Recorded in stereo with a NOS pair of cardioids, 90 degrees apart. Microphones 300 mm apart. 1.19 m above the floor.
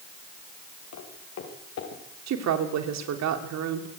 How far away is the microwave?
I don't hear a microwave.